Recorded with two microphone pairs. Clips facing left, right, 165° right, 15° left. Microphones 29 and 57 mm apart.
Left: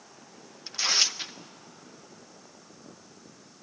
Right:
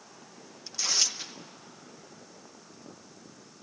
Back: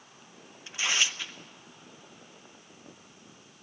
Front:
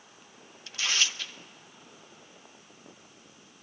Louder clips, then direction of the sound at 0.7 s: Left 4 dB, back 1 dB; 135° left.